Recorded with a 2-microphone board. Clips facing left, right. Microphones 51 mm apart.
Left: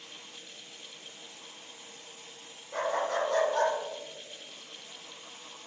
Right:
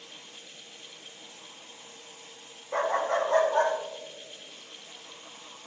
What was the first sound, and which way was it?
A dog barking, 45° right (ahead or behind).